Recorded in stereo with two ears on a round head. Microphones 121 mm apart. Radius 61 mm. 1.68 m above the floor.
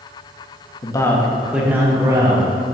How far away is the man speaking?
About 1.0 m.